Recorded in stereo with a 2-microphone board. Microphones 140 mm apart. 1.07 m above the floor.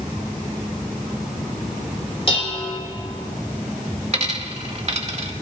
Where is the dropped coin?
45° right (ahead or behind), 1.1 m.